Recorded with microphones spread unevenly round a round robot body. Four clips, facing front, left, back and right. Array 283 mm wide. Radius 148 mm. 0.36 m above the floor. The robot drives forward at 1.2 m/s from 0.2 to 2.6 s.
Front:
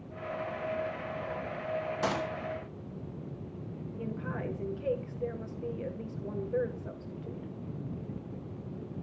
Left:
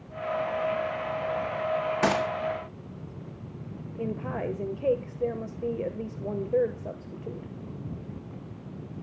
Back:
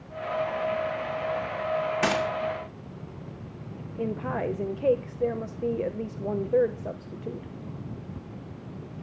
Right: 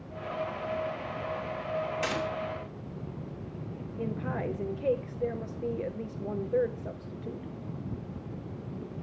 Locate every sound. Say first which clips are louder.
2.0 s a gunshot: left 7 dB, back 5 dB; 115° left, 5 m
4.0 s a woman speaking: left 2 dB, back 9 dB; 155° left, 1.2 m